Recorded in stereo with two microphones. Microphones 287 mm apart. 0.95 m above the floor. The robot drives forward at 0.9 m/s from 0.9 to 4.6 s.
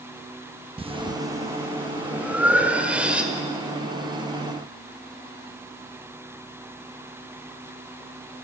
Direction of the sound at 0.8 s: 20° right (ahead or behind).